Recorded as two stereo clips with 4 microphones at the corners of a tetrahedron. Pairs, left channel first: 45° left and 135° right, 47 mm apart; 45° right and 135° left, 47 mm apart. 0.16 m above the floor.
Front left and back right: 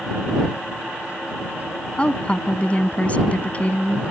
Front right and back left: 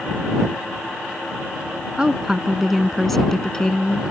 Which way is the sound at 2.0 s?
80° left.